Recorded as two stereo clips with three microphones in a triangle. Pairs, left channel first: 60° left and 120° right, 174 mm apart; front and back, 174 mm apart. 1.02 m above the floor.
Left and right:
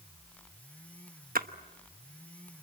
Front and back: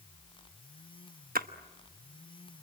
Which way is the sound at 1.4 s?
150° right.